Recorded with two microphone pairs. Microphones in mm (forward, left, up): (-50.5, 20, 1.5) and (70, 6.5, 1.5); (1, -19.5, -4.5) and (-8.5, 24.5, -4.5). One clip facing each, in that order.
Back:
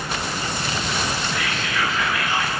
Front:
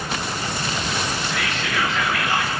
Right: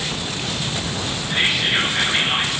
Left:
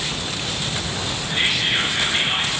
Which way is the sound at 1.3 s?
5° right.